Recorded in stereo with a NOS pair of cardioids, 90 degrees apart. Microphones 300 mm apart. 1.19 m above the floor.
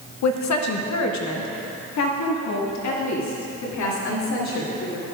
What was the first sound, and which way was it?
A woman speaking, 70° left.